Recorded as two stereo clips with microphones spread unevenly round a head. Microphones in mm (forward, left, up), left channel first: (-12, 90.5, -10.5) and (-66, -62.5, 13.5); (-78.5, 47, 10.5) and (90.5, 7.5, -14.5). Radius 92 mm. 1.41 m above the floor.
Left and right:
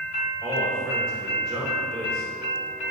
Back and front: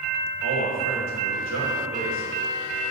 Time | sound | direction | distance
0.4 | a man speaking | 20° right | 3 m